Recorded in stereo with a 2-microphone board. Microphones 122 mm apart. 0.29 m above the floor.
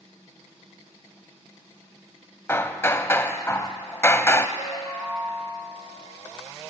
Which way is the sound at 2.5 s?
20° left (ahead or behind).